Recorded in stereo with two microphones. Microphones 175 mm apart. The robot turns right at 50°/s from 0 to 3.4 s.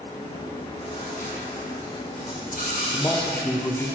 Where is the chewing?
5° left, 3 m; by 3.9 s 160° left, 3 m.